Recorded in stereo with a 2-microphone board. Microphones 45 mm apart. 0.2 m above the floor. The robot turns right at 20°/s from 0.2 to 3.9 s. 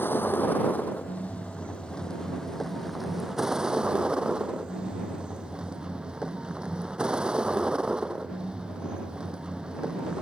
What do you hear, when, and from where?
0.0 s a vehicle: 125° left; by 10.2 s 160° right